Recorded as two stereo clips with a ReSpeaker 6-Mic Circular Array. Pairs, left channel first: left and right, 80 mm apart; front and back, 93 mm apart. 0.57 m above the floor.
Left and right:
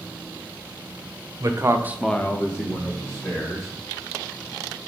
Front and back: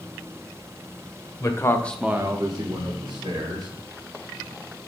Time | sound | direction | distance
1.4 | a man speaking | 50° right | 1.1 m